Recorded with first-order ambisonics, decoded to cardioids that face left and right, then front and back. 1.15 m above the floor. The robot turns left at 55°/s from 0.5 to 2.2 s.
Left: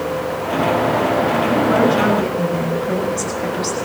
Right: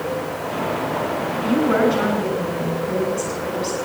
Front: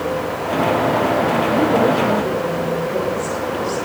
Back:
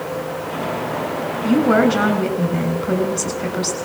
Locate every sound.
1.4 s a woman speaking: 165° right, 7 m; by 3.8 s 155° left, 7 m